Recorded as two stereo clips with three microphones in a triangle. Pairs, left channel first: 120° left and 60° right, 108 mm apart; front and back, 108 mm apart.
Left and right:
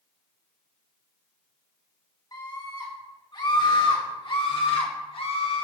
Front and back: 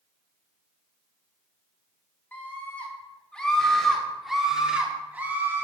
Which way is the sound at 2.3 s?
70° left.